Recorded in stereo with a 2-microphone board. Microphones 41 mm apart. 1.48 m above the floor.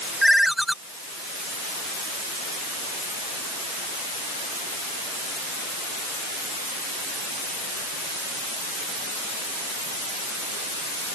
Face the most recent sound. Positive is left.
turn(degrees=-5)  # may be behind; listen again after turning